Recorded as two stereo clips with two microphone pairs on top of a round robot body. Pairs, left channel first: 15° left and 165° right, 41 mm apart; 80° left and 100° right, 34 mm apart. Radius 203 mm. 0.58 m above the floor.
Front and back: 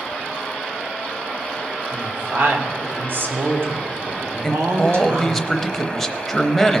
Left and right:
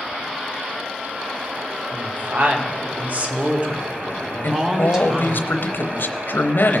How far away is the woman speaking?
About 2 m.